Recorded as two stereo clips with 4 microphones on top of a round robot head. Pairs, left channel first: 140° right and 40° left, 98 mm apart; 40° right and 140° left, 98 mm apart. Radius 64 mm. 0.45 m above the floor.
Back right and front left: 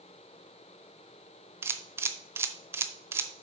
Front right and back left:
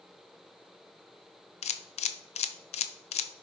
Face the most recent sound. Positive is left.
turn(degrees=-25)